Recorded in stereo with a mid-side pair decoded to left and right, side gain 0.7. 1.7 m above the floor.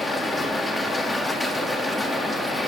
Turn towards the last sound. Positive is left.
turn(degrees=10)